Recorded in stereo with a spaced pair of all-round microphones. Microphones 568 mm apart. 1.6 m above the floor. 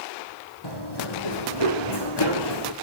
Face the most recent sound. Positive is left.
turn(degrees=40)  # may be behind; listen again after turning